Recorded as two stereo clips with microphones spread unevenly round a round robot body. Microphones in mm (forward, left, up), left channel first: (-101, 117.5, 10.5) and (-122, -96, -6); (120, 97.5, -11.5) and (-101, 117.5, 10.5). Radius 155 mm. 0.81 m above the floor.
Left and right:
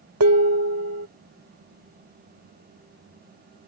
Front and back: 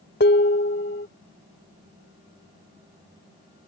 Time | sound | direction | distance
0.2 | dishes clattering | 65° right | ?